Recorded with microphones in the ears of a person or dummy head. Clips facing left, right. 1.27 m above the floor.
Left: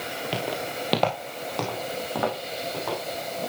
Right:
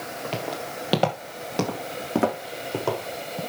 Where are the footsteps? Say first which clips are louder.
Left 2 dB; 10° left (ahead or behind), 1.8 m; by 3.4 s 50° right (ahead or behind), 4 m.